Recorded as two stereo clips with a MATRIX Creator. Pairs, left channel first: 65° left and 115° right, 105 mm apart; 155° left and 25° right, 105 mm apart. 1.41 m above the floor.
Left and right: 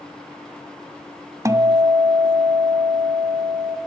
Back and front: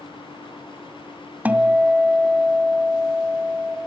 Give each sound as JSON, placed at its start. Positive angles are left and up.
{"t": 1.4, "sound": "a guitar", "azimuth_deg": -85, "distance_m": 1.4}